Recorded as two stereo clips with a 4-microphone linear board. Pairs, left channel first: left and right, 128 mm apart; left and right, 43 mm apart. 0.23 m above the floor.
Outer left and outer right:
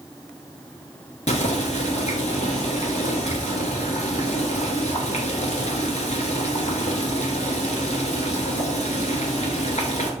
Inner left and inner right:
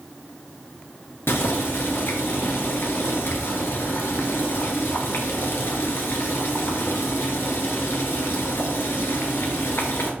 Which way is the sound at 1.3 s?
65° left (ahead or behind).